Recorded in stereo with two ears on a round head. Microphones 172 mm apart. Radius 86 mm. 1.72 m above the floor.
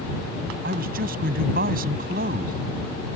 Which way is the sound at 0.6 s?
50° right (ahead or behind).